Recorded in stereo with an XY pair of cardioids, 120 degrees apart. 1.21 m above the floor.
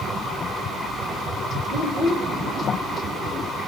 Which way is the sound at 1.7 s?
65° left.